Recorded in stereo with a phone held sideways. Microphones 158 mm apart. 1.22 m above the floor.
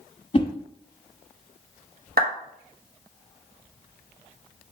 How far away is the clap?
About 1.1 m.